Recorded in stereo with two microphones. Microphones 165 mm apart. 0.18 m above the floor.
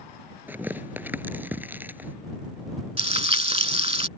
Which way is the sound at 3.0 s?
35° right (ahead or behind).